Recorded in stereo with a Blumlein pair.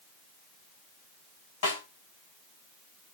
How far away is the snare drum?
About 7.5 m.